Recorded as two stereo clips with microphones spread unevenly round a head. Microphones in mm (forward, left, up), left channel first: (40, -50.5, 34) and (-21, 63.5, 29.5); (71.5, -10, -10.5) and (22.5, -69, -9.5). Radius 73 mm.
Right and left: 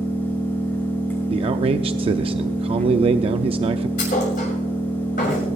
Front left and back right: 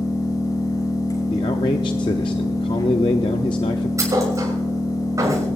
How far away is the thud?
About 6 m.